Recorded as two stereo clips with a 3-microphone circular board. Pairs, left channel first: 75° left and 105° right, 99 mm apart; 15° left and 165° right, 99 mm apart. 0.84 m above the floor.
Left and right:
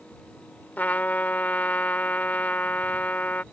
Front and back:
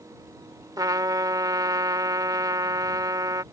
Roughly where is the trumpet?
Behind left.